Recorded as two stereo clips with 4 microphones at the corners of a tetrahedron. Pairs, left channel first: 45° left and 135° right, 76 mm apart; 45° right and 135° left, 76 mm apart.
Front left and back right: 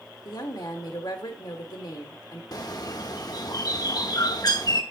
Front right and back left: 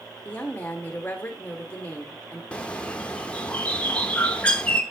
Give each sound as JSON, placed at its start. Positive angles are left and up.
{"t": 0.2, "sound": "a woman speaking", "azimuth_deg": 25, "distance_m": 1.6}
{"t": 2.5, "sound": "a bird", "azimuth_deg": 30, "distance_m": 0.9}